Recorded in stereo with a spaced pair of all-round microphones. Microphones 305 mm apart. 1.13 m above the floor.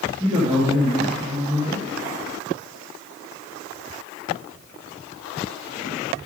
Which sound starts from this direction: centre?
A man speaking, at 0.2 s.